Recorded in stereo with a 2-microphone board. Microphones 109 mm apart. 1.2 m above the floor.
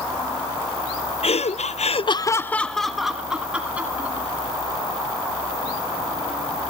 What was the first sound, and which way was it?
Laughter, 65° left (ahead or behind).